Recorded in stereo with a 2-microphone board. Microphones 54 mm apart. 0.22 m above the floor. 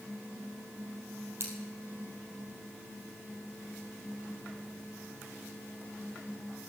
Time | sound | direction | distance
1.4 | scissors | 45° right (ahead or behind) | 3 m